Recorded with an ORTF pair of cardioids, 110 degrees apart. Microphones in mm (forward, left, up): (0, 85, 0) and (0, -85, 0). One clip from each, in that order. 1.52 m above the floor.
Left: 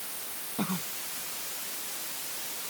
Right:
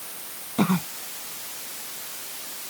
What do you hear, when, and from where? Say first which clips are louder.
0.6 s a cough: right 10 dB; 55° right